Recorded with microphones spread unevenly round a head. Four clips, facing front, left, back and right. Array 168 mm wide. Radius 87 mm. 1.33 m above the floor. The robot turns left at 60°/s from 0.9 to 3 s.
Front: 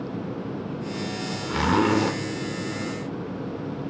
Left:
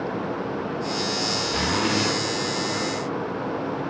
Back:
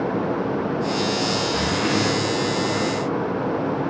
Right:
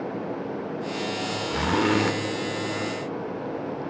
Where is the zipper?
Straight ahead, 1.8 m; by 2.2 s 40° right, 1.8 m.